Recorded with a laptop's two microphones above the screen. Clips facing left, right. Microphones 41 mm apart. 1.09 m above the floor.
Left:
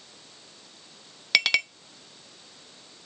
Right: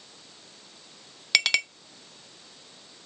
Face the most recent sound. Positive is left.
turn(degrees=5)  # may be behind; listen again after turning